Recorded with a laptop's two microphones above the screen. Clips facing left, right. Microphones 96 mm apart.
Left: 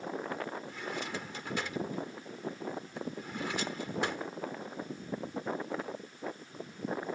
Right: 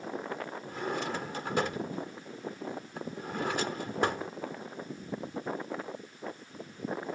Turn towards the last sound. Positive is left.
turn(degrees=-50)  # may be behind; listen again after turning